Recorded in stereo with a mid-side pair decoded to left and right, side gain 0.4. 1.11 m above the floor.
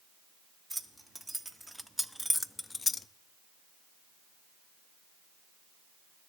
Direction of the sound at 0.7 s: 15° right.